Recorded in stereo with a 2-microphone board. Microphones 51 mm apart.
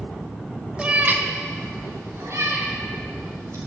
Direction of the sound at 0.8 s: 15° right (ahead or behind).